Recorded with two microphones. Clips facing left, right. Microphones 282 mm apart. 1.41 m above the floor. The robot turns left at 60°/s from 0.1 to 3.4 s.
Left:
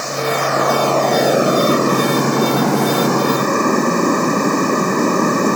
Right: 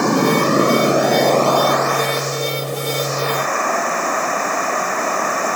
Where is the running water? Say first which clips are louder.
Right 6 dB; 115° right; by 5.6 s 45° left.